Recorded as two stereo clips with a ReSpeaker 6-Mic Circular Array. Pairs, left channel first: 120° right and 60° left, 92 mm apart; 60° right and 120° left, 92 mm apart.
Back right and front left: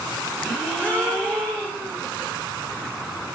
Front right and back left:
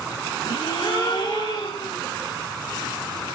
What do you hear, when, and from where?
0.4 s a gasp: 45° right, 3 m